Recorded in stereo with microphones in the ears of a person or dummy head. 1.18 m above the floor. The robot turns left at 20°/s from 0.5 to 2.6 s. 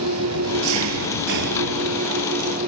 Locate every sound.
0.0 s an engine running: 100° right; by 2.7 s 140° right